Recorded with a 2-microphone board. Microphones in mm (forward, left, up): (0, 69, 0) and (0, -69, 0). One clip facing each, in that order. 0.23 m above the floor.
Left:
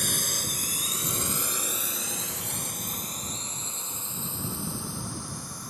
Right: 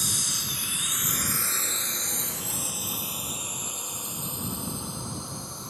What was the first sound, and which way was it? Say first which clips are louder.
A drone: left 3 dB; 60° left (ahead or behind).